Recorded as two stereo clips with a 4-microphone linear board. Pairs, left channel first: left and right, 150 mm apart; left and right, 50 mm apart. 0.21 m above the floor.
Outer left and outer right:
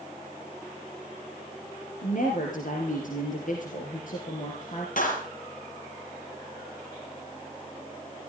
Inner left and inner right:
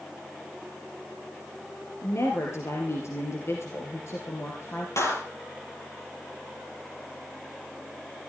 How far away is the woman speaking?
About 3.5 m.